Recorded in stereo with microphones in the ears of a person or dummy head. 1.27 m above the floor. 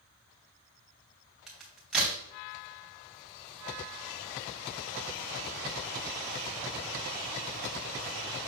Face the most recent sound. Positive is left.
turn(degrees=-5)  # may be behind; listen again after turning